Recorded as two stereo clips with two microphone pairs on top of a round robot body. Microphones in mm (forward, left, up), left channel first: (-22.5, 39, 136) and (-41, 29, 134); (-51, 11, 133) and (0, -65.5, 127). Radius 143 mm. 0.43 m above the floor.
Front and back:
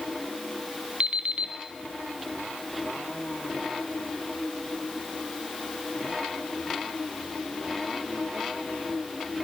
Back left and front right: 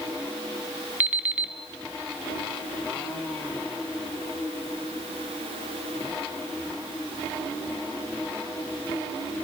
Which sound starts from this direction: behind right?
An alarm clock, at 1.0 s.